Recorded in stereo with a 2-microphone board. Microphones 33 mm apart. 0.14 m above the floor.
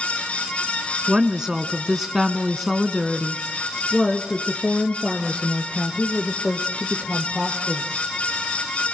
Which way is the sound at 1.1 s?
20° right (ahead or behind).